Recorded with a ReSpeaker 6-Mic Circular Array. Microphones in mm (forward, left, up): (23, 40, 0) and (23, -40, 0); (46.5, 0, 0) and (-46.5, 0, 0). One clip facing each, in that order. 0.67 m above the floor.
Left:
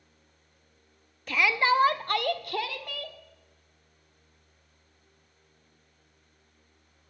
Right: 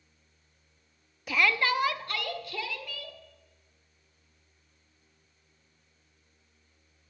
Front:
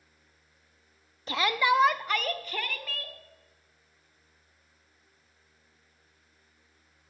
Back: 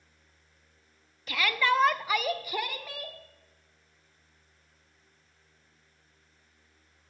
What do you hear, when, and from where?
1.3 s a shout: 15° right, 0.6 m; by 3.2 s 110° left, 1.6 m